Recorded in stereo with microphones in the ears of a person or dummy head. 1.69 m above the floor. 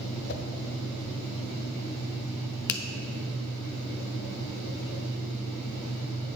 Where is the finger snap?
60° left (ahead or behind), 0.6 m.